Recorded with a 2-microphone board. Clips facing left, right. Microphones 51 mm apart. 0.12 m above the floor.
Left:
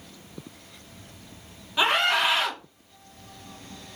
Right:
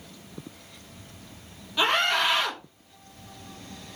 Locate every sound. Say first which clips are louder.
1.8 s a scream: left 1 dB; 15° left (ahead or behind), 1.1 m